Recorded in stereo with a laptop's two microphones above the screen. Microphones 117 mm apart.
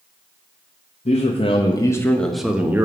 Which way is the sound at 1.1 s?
65° left (ahead or behind).